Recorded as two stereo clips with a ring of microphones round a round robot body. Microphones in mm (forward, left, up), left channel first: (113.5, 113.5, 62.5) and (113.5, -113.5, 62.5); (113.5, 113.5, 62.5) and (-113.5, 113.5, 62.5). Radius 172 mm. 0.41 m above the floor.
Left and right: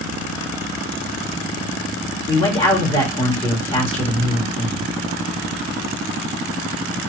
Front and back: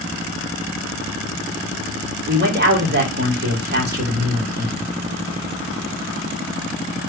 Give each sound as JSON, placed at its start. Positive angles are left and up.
{"t": 2.3, "sound": "a man speaking", "azimuth_deg": 155, "distance_m": 1.9}